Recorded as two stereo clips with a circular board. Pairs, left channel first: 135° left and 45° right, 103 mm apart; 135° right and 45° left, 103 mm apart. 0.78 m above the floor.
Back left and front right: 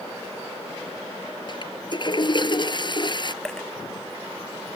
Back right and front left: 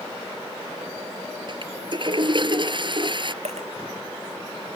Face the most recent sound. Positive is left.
turn(degrees=50)